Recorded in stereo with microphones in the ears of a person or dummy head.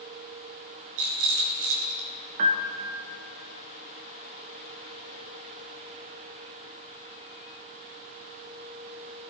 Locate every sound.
1.0 s a rattle: 80° right, 3.5 m
2.4 s a piano: 40° right (ahead or behind), 1.1 m